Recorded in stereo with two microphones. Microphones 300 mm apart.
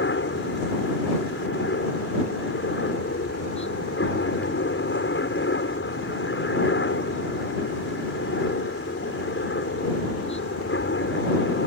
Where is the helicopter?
40° left (ahead or behind).